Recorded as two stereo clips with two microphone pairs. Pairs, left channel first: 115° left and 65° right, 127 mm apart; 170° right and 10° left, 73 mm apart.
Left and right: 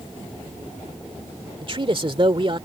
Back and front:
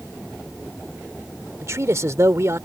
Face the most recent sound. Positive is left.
turn(degrees=-30)